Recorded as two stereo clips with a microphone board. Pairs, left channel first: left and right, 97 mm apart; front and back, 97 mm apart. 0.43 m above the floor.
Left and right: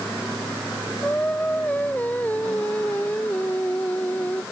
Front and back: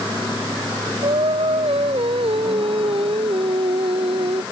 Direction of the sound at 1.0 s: 165° left.